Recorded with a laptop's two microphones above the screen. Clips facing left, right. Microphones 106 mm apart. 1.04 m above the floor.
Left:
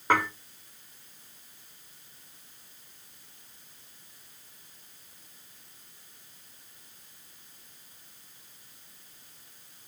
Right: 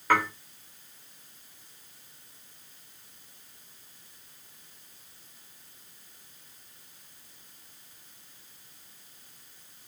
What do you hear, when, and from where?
0.1 s dishes clattering: 25° left (ahead or behind), 2 m